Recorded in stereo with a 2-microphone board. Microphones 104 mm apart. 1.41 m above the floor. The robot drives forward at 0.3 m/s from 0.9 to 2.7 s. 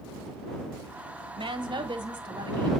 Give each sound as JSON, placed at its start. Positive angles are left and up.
{"t": 1.3, "sound": "a woman speaking", "side_deg": -50, "distance_m": 1.3}